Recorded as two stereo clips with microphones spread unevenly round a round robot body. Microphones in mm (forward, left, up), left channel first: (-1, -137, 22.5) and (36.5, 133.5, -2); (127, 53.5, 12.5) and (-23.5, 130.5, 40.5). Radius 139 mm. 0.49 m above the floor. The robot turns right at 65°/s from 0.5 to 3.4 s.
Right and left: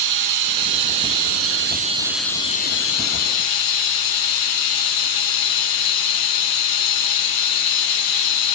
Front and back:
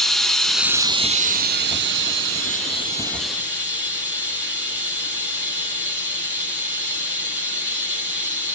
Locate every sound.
0.0 s running water: 60° left, 1.6 m; by 8.6 s 110° right, 1.6 m